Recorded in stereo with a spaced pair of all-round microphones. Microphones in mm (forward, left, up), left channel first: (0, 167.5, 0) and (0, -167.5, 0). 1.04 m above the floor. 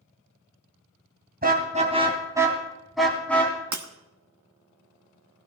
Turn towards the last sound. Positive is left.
turn(degrees=-60)  # may be behind; listen again after turning